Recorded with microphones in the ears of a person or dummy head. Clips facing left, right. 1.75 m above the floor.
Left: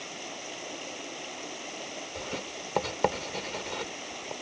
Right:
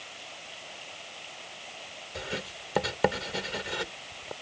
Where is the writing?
15° right (ahead or behind).